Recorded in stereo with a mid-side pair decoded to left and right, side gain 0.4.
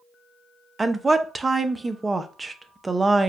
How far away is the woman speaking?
About 0.6 m.